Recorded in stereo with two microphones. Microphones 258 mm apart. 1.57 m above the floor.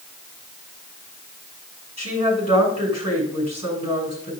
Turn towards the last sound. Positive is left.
turn(degrees=80)